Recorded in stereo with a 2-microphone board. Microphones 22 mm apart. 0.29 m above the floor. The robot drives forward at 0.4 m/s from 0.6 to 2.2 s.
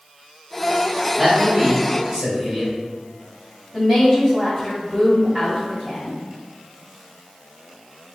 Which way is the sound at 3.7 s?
5° left (ahead or behind).